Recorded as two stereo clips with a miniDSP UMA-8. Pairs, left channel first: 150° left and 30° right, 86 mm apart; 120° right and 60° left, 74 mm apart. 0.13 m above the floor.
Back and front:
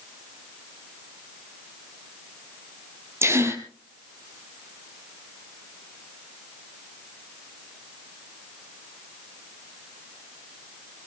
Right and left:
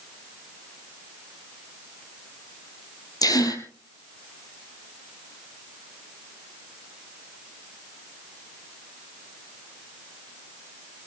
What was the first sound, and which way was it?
A gasp, 90° right.